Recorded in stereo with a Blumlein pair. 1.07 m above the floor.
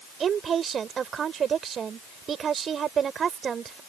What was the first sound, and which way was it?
A woman speaking, 25° right.